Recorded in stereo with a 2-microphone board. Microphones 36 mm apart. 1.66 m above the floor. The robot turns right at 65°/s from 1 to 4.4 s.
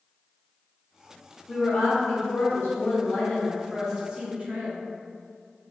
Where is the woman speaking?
30° left, 1.1 m; by 4.8 s 140° right, 1.1 m.